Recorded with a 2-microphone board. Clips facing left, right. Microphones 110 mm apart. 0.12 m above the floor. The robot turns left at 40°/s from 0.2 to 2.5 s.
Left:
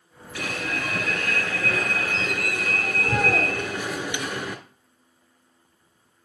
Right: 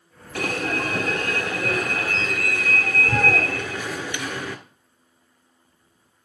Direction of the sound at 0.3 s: 110° right.